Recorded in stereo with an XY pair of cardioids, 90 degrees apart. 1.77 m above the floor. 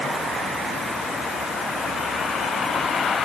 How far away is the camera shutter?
I don't hear a camera shutter.